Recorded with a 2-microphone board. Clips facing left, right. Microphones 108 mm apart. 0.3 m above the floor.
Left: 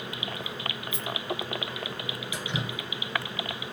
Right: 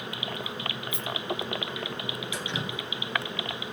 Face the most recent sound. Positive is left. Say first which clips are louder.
# left 2 dB
turn(degrees=10)  # may be behind; listen again after turning